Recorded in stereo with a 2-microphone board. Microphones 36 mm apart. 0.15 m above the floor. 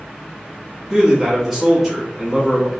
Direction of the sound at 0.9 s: 5° right (ahead or behind).